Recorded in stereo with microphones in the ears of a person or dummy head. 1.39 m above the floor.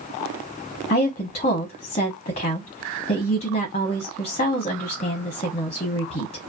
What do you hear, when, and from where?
0.9 s a woman speaking: 30° left (ahead or behind), 0.6 m